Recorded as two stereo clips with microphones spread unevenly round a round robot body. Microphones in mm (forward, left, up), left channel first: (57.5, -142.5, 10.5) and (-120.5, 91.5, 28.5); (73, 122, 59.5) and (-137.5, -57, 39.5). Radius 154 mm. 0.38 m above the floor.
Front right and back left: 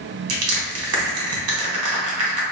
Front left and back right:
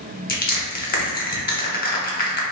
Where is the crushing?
95° left, 1.3 m.